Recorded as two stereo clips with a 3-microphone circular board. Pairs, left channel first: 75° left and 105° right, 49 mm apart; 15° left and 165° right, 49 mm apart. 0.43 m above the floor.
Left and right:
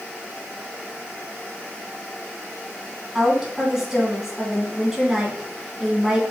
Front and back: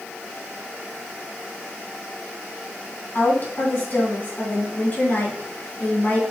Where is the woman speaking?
25° right, 3 m.